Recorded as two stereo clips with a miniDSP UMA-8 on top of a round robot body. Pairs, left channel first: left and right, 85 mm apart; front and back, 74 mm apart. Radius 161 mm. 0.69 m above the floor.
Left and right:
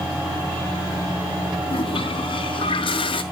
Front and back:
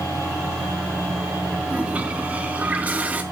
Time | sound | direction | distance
1.7 | a toilet flushing | 110° left | 0.8 m